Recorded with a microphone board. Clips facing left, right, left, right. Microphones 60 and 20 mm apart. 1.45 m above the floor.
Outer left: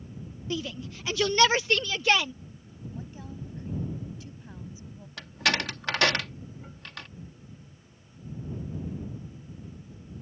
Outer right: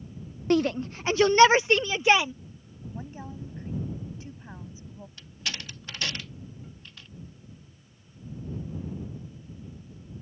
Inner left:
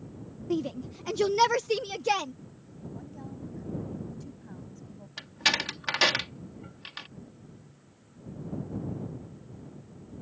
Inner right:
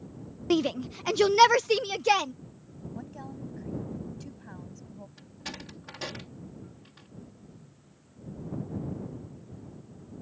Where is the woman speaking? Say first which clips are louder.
Outer right 3 dB, inner right 3 dB; 25° right (ahead or behind).